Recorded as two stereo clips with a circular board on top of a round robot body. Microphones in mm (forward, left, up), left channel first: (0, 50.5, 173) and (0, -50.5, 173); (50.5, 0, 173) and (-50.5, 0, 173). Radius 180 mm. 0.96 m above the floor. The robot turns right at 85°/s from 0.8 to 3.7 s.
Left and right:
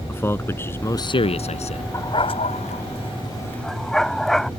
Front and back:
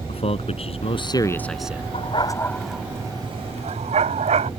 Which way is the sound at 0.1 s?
25° left.